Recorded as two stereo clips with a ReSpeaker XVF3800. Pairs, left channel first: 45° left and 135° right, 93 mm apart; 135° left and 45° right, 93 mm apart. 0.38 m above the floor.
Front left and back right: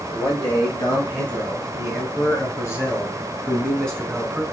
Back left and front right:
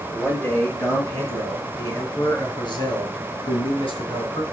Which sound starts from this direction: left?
A man speaking, at 0.1 s.